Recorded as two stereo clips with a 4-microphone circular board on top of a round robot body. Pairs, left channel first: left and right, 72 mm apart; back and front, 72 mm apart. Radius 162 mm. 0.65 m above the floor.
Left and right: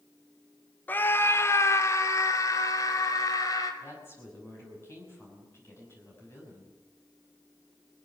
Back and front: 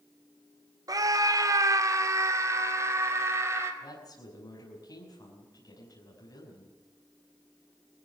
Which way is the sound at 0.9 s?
30° left.